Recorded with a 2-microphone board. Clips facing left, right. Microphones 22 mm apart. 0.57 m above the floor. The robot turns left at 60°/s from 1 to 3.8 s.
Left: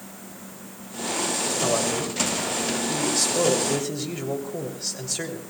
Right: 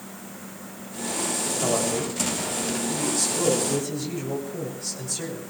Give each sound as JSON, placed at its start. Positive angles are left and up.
{"t": 1.6, "sound": "a man speaking", "azimuth_deg": 180, "distance_m": 3.0}